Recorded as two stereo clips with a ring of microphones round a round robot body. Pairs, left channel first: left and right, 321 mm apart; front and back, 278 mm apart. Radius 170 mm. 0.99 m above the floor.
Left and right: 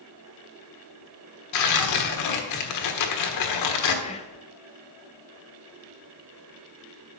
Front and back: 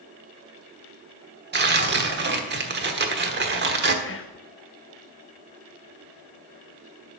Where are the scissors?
I don't hear scissors.